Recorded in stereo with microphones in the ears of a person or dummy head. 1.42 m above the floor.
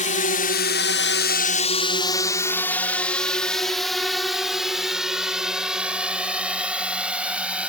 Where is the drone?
30° left (ahead or behind); by 7.7 s centre (ahead or behind).